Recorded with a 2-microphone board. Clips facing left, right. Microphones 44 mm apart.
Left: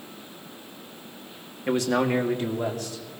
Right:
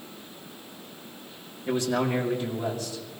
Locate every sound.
1.7 s a man speaking: 80° left, 2 m; by 3.2 s 55° left (ahead or behind), 3.5 m